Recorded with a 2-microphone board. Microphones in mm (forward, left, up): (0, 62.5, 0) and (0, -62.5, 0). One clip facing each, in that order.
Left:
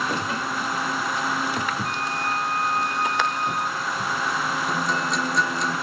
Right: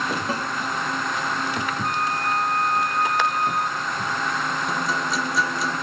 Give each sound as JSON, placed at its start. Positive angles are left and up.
{"t": 0.3, "sound": "a snare drum", "side_deg": -40, "distance_m": 1.8}
{"t": 1.8, "sound": "a flute", "side_deg": -45, "distance_m": 1.3}
{"t": 4.7, "sound": "a guitar", "side_deg": 0, "distance_m": 1.5}